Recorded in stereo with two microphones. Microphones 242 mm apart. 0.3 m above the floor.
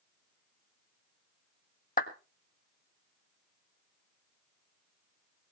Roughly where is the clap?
Left.